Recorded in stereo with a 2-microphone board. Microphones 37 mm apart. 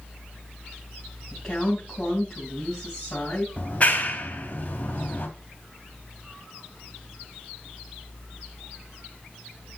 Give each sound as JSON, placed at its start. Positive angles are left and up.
{"t": 1.3, "sound": "a woman speaking", "side_deg": 10, "distance_m": 4.0}
{"t": 3.6, "sound": "a clap", "side_deg": 40, "distance_m": 2.5}